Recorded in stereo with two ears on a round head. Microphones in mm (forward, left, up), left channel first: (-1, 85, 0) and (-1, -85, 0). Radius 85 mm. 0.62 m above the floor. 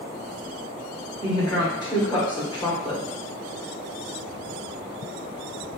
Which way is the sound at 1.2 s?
25° left (ahead or behind).